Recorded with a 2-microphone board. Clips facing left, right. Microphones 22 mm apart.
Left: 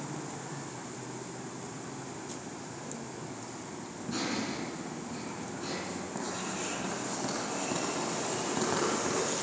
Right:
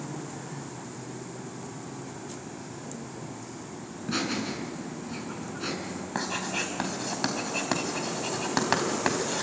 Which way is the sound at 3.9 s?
40° right (ahead or behind).